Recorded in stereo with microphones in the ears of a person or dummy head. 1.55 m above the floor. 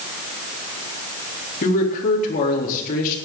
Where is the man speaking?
40° left (ahead or behind), 4 m.